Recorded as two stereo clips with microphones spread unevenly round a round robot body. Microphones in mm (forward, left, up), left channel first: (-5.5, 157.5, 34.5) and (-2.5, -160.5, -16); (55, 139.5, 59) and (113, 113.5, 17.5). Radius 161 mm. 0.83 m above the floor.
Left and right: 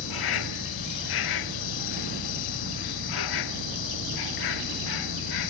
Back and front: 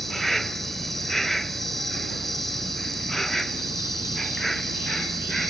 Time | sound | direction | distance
0.0 | an insect | 75° left | ?